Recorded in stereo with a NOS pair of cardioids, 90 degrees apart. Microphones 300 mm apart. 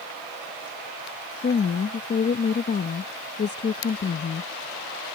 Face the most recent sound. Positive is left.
turn(degrees=35)